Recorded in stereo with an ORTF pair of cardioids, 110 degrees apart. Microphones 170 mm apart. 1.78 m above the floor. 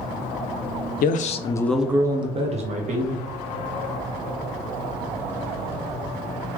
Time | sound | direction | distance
1.0 | a man speaking | 60° left | 0.7 m